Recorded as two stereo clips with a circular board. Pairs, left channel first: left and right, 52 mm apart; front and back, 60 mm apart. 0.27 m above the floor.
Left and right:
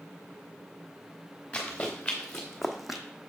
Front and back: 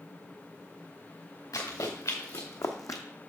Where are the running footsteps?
15° left, 2.5 m; by 3.0 s 10° right, 0.8 m.